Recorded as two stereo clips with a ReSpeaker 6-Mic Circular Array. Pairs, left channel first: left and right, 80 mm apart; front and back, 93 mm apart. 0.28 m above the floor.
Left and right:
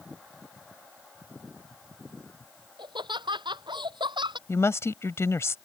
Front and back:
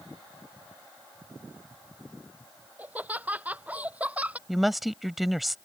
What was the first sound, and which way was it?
Laughter, 105° right.